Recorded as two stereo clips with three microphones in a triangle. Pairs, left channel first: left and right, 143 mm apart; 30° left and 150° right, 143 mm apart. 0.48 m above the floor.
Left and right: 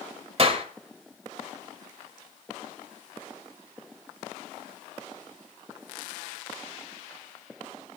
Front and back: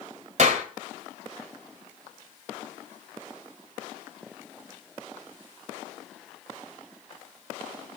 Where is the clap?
130° right, 2 m.